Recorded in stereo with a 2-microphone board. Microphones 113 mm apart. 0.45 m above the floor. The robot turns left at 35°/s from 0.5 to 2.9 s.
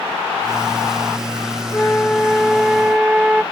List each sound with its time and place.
1.7 s a flute: 30° left; by 3.4 s 10° right